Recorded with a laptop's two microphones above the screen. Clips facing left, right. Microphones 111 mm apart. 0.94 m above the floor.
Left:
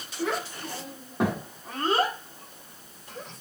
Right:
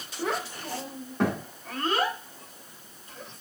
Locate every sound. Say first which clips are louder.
0.2 s a child speaking: left 1 dB; 15° right (ahead or behind), 1.6 m; by 3.4 s 75° left (ahead or behind), 1.5 m